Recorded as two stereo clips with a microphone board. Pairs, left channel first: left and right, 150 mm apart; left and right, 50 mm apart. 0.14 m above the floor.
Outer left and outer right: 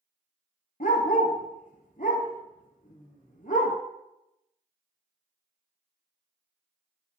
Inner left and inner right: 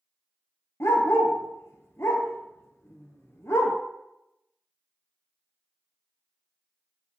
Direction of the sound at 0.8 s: 65° left (ahead or behind).